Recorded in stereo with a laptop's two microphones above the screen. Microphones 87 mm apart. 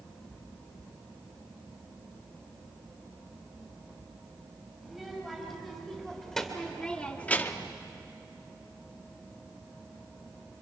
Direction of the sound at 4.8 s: Centre (ahead or behind).